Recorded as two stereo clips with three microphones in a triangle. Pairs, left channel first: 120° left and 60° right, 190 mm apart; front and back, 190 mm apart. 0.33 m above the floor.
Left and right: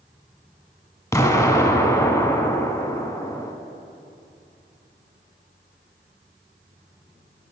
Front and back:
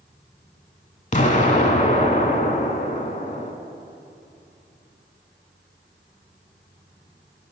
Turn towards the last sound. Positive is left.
turn(degrees=45)